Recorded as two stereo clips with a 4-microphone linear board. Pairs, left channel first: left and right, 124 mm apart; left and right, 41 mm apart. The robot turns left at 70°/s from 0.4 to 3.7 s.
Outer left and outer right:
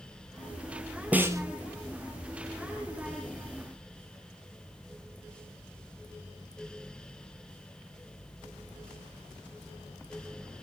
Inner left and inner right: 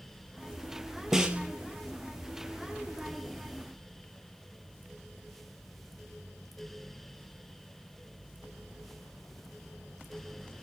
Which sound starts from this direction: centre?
A snare drum, at 1.1 s.